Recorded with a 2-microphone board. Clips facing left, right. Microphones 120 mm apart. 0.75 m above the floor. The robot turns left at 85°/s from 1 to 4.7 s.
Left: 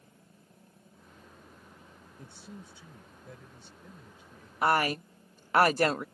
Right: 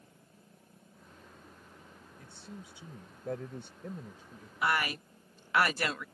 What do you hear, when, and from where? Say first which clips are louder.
2.2 s a man speaking: left 1 dB; 25° left; by 4.5 s 170° right
4.6 s a woman speaking: left 5 dB; 45° left (ahead or behind)